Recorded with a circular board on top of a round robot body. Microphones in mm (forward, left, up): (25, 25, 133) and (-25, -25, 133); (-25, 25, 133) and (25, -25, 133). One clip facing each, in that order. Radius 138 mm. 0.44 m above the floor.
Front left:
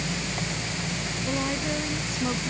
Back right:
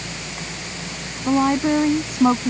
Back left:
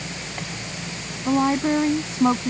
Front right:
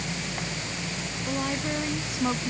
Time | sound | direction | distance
1.2 | a woman speaking | 175° right | ?